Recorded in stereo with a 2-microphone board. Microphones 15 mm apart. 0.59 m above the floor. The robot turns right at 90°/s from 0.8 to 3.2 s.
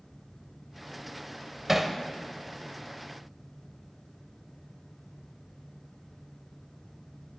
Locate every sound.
1.7 s hammering: 25° right (ahead or behind), 0.9 m; by 1.9 s centre (ahead or behind), 0.9 m